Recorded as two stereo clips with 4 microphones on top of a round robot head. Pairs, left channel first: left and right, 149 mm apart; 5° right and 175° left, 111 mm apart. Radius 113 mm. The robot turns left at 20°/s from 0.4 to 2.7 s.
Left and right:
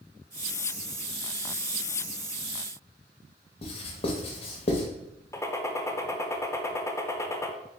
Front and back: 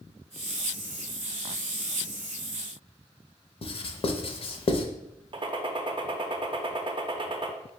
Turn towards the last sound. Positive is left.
turn(degrees=155)